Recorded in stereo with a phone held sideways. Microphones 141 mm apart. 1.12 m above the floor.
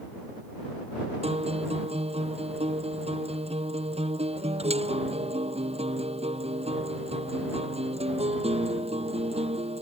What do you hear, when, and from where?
1.2 s a guitar: 45° right (ahead or behind)